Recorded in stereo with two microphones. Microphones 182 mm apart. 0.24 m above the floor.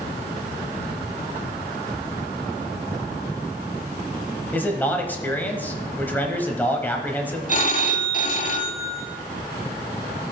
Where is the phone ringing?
45° left (ahead or behind), 0.8 m.